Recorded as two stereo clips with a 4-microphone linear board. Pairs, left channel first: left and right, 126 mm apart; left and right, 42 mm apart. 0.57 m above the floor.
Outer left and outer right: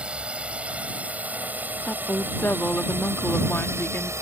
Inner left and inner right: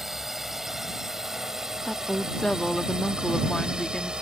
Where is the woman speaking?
15° left (ahead or behind).